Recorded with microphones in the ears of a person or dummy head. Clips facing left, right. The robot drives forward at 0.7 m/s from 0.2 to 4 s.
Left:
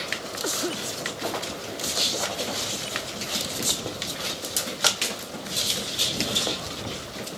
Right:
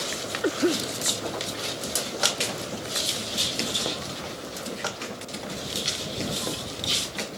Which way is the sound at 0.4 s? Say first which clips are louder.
Right 7 dB; 30° right (ahead or behind).